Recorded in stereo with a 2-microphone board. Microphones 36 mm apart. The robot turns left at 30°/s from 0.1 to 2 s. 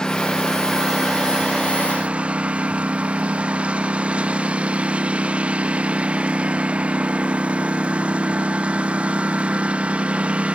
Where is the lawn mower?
20° left; by 10.6 s 35° right.